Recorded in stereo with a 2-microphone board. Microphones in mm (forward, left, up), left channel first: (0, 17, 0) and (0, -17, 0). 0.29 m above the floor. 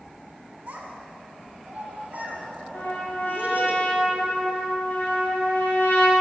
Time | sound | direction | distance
0.7 | a child speaking | 60° right (ahead or behind) | 2.5 m
2.7 | a trumpet | 80° left | 3.5 m